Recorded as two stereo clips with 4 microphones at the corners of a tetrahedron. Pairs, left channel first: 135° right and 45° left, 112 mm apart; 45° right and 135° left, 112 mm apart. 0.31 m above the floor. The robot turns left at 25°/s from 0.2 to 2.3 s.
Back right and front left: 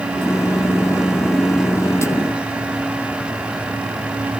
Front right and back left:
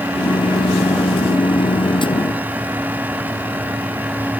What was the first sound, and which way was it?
Only background noise.